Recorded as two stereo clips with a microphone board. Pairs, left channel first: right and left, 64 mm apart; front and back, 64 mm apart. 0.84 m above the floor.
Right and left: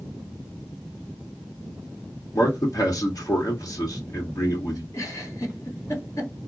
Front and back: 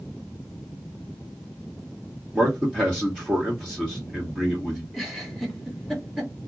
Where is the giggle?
90° right, 1.4 m.